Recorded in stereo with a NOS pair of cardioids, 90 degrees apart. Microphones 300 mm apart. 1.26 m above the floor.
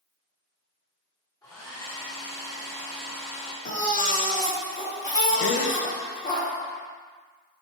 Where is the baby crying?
25° left, 1.4 m.